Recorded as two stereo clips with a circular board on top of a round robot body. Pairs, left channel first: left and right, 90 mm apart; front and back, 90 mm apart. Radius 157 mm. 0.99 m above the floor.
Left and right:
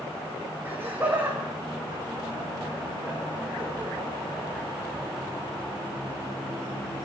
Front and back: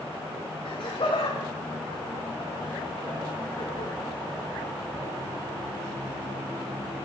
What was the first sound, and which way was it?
Laughter, 25° right.